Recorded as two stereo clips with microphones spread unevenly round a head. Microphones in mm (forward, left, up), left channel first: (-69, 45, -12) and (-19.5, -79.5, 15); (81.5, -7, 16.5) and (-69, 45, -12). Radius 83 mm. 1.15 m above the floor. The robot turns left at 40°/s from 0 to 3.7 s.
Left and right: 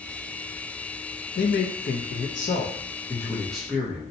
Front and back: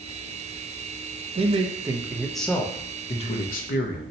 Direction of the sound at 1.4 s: 110° left.